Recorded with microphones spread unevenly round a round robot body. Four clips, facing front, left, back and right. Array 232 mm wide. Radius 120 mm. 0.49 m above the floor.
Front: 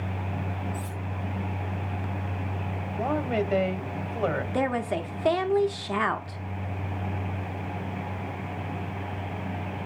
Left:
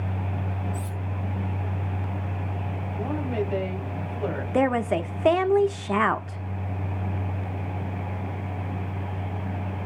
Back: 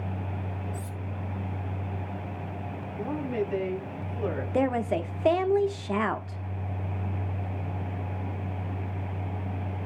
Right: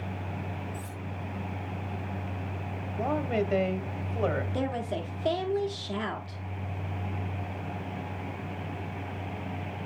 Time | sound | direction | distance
0.7 | cutlery clinking | 140° left | 1.9 m
3.0 | a woman speaking | 40° right | 2.5 m
4.5 | a woman speaking | 95° left | 1.0 m